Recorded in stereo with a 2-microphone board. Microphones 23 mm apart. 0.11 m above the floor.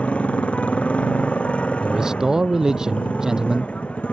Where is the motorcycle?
65° left (ahead or behind).